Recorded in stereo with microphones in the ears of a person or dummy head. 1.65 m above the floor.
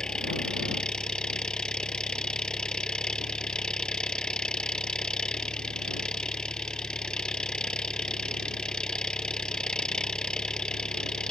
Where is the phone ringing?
I don't hear a phone ringing.